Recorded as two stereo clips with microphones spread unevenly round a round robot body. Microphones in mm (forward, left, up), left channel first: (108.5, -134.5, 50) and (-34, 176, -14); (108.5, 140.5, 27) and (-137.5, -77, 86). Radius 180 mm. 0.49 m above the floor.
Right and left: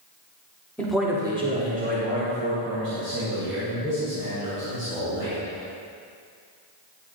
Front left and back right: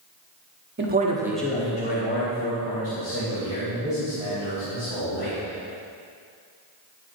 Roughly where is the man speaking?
Behind.